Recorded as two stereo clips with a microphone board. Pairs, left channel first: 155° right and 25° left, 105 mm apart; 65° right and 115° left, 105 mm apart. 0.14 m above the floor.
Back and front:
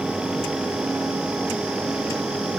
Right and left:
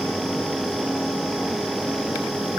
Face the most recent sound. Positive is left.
No sound to turn to.